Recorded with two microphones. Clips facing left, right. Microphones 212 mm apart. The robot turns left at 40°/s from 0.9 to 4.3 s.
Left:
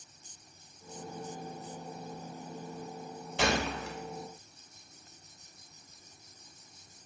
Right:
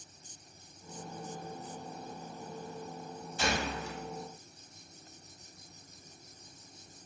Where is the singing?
No singing in this recording.